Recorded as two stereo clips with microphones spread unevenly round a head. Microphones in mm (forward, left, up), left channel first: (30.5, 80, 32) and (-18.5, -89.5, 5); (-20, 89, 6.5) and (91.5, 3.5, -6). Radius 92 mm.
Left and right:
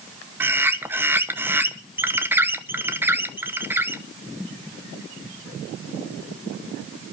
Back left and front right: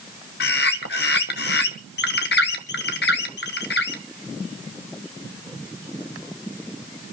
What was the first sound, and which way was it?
A bird, 175° left.